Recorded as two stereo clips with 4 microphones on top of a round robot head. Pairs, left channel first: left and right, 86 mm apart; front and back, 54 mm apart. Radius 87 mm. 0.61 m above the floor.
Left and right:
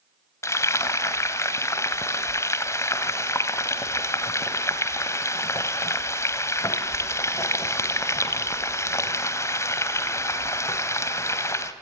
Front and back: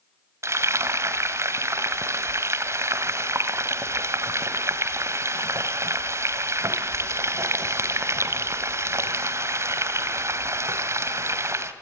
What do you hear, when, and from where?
0.4 s frying: 145° left, 2.5 m